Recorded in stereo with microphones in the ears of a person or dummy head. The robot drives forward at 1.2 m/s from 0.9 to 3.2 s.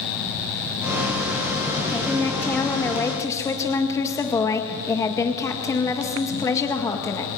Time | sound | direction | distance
1.9 | a woman speaking | 5° left (ahead or behind) | 3 m